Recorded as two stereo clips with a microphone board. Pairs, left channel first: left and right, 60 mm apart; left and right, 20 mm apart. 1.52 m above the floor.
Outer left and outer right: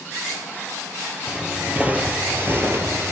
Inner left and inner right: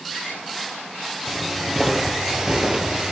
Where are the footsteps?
15° right (ahead or behind), 2.5 m; by 3.1 s 50° right (ahead or behind), 2 m.